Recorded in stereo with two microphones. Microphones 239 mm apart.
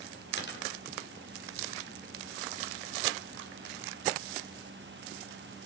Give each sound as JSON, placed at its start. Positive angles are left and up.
{"t": 0.4, "sound": "a dropped coin", "side_deg": 45, "distance_m": 3.0}